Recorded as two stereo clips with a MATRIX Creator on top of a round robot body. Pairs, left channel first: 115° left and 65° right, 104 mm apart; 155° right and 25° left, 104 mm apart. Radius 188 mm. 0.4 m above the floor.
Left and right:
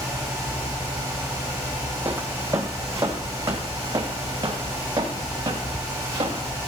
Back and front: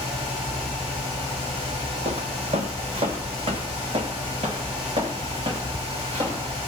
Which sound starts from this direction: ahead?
Footsteps, at 2.0 s.